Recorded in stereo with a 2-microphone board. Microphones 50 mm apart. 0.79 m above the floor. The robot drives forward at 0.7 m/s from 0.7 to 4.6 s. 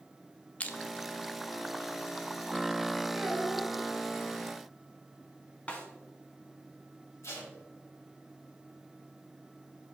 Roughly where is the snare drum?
Left.